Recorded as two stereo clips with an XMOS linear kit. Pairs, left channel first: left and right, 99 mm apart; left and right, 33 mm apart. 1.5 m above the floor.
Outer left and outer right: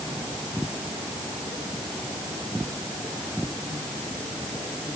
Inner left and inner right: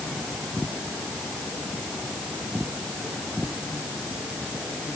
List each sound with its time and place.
Only background noise.